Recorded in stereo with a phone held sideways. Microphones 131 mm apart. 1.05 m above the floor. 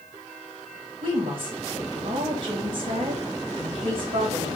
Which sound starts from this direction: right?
A woman speaking, at 1.0 s.